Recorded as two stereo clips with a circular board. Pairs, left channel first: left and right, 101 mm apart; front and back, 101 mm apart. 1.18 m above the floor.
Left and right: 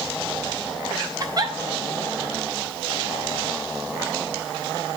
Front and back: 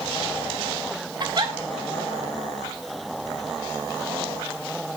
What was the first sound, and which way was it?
A giggle, 135° right.